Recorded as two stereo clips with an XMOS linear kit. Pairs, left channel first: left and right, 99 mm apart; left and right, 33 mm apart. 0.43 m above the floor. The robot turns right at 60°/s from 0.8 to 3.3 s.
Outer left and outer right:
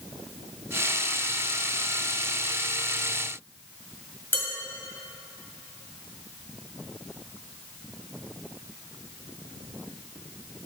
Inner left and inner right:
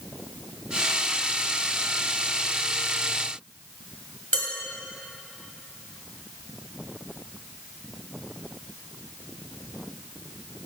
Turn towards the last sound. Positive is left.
turn(degrees=20)  # may be behind; listen again after turning